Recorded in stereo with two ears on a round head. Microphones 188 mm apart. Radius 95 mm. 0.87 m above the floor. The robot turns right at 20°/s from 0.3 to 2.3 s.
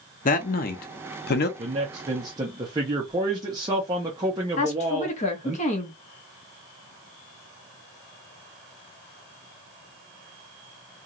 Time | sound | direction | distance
0.2 | a man speaking | 40° left (ahead or behind) | 0.7 m
1.6 | a man speaking | 30° right (ahead or behind) | 0.8 m
4.6 | a woman speaking | 35° left (ahead or behind) | 0.9 m